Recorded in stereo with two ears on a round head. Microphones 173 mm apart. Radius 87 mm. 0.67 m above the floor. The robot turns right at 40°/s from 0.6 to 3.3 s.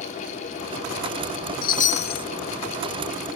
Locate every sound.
1.6 s a chime: 45° left (ahead or behind), 0.8 m; by 2.2 s 20° left (ahead or behind), 0.8 m